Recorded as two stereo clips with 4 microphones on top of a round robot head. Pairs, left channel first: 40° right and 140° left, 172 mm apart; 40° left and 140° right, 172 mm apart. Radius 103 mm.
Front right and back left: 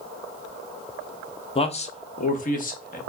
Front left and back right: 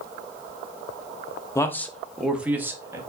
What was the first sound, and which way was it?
A man speaking, 20° right.